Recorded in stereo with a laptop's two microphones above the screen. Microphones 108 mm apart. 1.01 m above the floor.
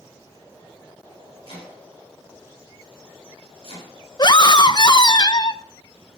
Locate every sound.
1.4 s chopping: 65° left (ahead or behind), 7 m
4.2 s a scream: 45° left (ahead or behind), 0.7 m